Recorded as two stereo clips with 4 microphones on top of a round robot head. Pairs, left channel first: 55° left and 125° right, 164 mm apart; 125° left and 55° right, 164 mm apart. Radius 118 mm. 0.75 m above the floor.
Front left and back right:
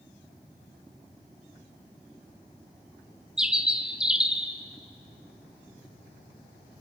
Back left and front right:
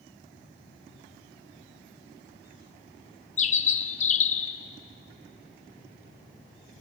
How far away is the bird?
About 1.4 m.